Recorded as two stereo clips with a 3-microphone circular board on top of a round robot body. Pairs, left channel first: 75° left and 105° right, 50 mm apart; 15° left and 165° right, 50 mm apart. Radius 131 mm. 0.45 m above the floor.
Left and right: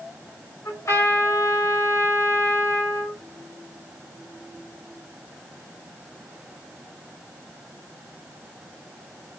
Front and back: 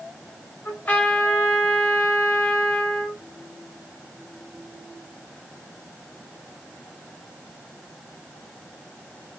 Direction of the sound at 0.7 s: 70° left.